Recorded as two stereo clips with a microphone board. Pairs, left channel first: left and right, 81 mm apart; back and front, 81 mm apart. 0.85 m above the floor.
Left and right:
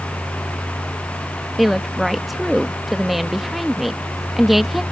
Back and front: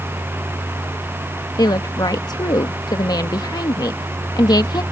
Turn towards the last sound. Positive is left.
turn(degrees=180)